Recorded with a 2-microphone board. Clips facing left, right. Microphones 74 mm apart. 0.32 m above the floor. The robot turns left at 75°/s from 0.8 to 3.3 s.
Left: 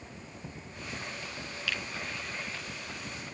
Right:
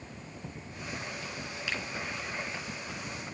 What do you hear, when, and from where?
1.7 s a finger snap: 25° right (ahead or behind), 3.5 m; by 1.8 s 35° right (ahead or behind), 3.5 m